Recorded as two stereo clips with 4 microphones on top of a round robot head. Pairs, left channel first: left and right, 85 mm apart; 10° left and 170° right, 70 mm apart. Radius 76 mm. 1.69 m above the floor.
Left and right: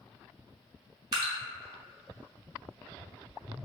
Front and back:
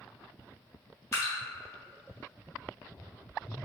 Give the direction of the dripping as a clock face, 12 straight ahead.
2 o'clock.